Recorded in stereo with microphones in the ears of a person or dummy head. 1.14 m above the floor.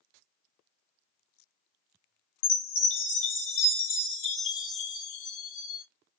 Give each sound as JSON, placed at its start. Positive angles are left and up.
{"t": 2.4, "sound": "a chime", "side_deg": 65, "distance_m": 1.5}